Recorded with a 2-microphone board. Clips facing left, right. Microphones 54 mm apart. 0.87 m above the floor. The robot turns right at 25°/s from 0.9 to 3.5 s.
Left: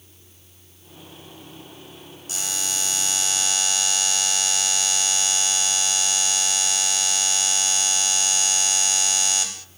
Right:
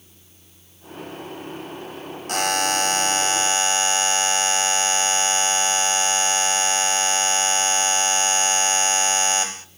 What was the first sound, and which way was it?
A buzzer, 70° right.